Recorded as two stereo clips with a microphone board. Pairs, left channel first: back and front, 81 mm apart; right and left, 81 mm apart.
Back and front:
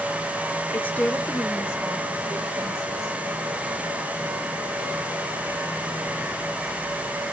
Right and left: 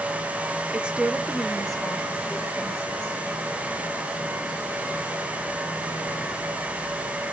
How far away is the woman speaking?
About 0.9 m.